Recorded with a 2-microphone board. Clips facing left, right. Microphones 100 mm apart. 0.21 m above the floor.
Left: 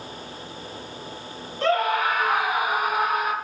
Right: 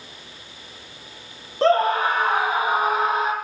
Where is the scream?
35° right (ahead or behind), 5 m; by 3.3 s 25° right (ahead or behind), 7.5 m.